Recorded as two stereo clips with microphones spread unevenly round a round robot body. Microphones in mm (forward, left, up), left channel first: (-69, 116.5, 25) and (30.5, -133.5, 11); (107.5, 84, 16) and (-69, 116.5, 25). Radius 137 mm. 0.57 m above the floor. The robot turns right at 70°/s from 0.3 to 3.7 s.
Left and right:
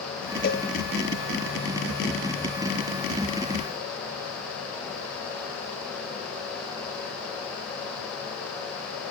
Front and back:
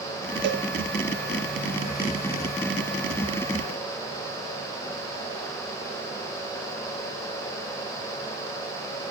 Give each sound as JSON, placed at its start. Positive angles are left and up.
{"t": 0.4, "sound": "a cowbell", "azimuth_deg": 165, "distance_m": 3.0}